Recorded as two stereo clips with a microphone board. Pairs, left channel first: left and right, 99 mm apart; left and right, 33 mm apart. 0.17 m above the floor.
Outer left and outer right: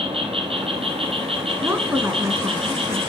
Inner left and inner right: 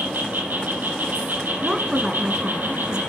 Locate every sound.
0.0 s an insect: 80° right, 2 m
1.6 s a woman speaking: 25° right (ahead or behind), 1.7 m